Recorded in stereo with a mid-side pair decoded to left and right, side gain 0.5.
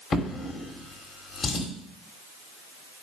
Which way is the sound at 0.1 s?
40° left.